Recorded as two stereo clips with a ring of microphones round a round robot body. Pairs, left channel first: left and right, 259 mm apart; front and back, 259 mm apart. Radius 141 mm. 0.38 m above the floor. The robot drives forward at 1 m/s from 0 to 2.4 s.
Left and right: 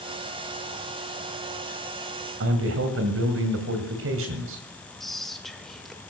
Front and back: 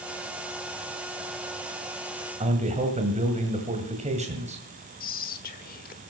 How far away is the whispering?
About 1.4 m.